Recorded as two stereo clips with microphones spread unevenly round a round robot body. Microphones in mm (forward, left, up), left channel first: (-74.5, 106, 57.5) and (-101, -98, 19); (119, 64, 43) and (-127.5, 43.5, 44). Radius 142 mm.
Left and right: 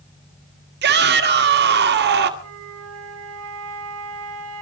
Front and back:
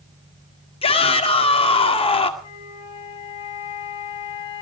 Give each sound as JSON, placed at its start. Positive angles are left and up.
{"t": 0.8, "sound": "a shout", "azimuth_deg": -65, "distance_m": 2.0}
{"t": 2.4, "sound": "a flute", "azimuth_deg": -65, "distance_m": 2.0}